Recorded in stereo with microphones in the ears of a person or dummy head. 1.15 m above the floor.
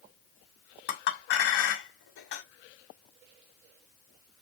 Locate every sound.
0.9 s a clink: 60° left (ahead or behind), 1.0 m